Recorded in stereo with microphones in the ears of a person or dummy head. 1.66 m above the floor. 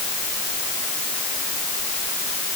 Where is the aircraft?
I don't hear an aircraft.